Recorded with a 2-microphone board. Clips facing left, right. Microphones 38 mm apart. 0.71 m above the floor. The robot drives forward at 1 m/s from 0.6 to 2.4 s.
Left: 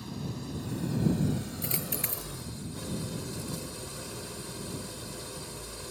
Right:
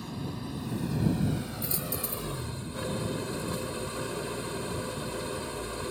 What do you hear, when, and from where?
0.0 s an engine running: 15° right (ahead or behind); by 5.9 s 40° right (ahead or behind)
1.6 s a dropped coin: 60° left (ahead or behind); by 2.3 s 65° left (ahead or behind)